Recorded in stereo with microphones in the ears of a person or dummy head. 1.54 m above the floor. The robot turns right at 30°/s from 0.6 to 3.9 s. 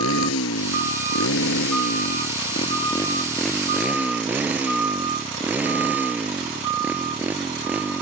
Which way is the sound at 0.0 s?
90° left.